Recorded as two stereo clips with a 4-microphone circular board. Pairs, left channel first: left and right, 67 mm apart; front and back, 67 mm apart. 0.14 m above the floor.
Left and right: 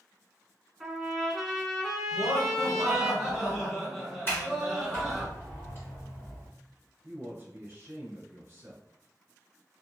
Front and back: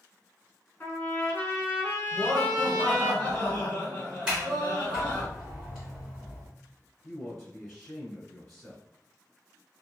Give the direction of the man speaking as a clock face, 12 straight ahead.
3 o'clock.